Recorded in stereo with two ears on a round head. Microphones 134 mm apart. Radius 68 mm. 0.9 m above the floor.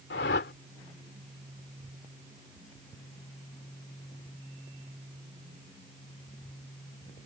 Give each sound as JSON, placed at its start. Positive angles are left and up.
{"t": 0.1, "sound": "a whoosh", "side_deg": 70}